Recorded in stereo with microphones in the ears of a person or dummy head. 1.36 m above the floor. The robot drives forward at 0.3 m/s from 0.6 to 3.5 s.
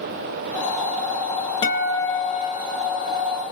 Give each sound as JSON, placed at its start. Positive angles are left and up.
{"t": 1.6, "sound": "a guitar", "side_deg": 25, "distance_m": 0.8}